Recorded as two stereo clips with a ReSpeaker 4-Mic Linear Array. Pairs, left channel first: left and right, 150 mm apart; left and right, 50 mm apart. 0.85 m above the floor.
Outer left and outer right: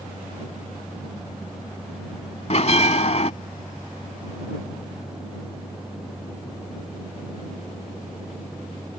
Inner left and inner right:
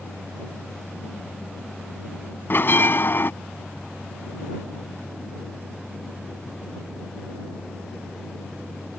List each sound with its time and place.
2.5 s a bell: 50° left (ahead or behind)